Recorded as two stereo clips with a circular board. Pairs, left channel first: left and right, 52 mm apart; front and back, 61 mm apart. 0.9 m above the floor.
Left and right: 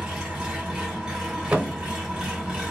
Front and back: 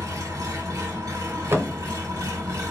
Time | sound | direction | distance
0.0 | an engine running | 160° right | 1.5 m
1.5 | a thud | 145° right | 0.8 m